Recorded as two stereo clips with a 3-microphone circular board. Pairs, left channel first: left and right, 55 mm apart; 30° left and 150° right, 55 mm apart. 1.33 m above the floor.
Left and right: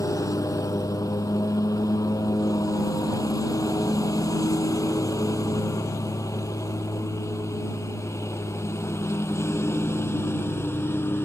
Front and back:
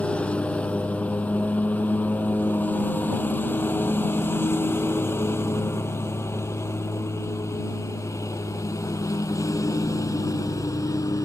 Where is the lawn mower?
100° left; by 11.3 s 45° left.